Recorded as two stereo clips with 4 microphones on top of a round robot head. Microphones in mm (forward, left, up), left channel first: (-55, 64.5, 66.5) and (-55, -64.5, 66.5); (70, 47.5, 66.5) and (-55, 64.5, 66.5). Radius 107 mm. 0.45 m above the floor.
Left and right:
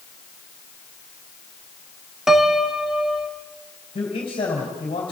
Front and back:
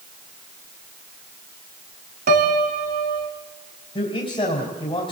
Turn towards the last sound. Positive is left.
turn(degrees=35)